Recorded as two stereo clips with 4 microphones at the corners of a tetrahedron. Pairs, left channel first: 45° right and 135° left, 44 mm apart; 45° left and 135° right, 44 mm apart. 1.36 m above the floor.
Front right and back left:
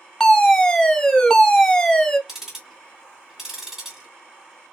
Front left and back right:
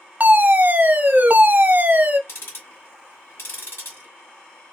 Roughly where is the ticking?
Ahead left.